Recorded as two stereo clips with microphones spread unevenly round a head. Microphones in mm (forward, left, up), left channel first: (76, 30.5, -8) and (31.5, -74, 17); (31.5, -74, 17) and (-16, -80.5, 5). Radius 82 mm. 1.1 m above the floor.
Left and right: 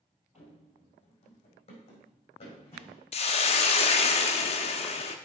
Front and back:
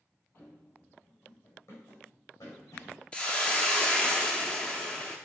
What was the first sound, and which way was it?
Running footsteps, 40° left.